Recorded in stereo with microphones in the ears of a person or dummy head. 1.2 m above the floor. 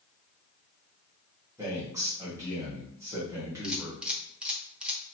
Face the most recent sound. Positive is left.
turn(degrees=-5)  # may be behind; listen again after turning